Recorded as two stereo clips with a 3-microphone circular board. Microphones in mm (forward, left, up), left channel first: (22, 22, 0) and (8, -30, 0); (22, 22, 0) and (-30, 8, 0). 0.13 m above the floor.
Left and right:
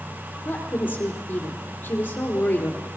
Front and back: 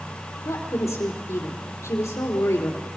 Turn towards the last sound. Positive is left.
turn(degrees=20)